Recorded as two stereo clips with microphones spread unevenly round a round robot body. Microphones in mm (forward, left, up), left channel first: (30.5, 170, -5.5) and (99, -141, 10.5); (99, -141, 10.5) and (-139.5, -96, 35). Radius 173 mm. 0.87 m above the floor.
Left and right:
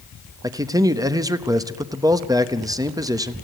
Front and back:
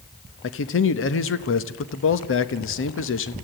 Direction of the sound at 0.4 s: Straight ahead.